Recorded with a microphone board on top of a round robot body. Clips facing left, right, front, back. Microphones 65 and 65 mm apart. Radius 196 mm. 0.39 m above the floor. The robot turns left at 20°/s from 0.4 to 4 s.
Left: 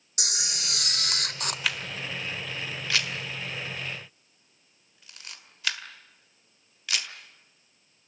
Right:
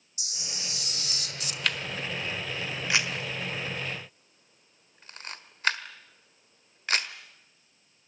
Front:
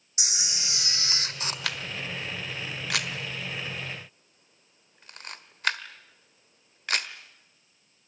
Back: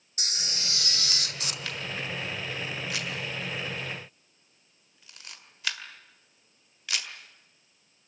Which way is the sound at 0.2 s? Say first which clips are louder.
Left 6 dB, even; 80° left.